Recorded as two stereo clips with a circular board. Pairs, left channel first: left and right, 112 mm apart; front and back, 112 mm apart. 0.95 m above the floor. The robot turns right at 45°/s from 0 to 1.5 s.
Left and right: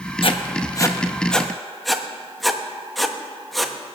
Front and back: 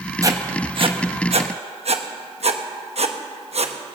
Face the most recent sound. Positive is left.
turn(degrees=180)